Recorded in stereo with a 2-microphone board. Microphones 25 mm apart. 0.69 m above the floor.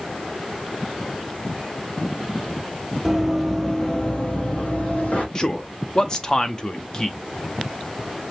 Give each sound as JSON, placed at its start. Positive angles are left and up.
{"t": 3.0, "sound": "running footsteps", "side_deg": -10, "distance_m": 0.9}
{"t": 5.3, "sound": "a man speaking", "side_deg": 25, "distance_m": 0.5}